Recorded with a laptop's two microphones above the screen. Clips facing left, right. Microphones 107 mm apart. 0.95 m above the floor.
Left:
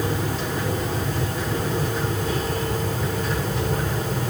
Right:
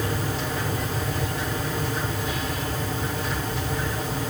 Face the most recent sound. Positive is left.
turn(degrees=50)  # may be behind; listen again after turning